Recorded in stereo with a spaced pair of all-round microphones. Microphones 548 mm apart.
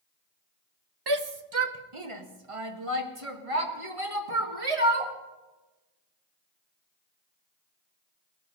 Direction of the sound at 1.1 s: 45° right (ahead or behind).